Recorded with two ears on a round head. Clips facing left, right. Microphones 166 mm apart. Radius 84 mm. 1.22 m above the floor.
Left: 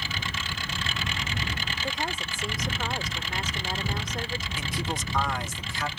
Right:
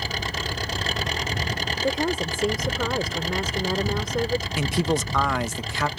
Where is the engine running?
35° right (ahead or behind).